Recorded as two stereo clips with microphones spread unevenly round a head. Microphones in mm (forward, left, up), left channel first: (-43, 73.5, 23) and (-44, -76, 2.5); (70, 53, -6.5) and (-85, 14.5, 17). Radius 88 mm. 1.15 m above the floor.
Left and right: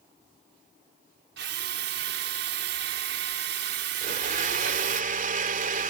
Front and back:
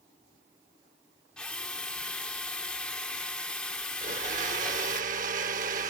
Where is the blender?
125° right.